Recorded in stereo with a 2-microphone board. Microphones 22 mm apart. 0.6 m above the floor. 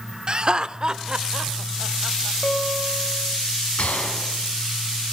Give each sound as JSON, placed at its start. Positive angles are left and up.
{"t": 0.3, "sound": "laughter", "side_deg": -40, "distance_m": 1.3}
{"t": 2.4, "sound": "a guitar", "side_deg": 65, "distance_m": 3.5}
{"t": 3.8, "sound": "a gunshot", "side_deg": 80, "distance_m": 4.5}